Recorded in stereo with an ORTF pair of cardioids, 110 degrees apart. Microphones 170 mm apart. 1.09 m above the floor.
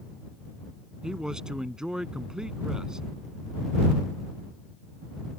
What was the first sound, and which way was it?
A man speaking, 5° right.